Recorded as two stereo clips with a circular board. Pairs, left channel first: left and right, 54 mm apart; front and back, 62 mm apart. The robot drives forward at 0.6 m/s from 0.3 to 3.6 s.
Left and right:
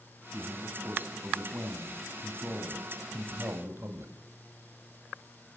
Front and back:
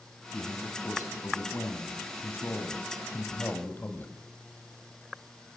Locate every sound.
0.3 s a man speaking: 35° right, 4.5 m; by 4.1 s 55° right, 3.5 m